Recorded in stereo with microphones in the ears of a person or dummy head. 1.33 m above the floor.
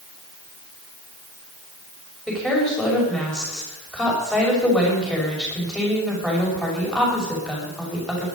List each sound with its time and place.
2.3 s a woman speaking: 5° left (ahead or behind), 5.5 m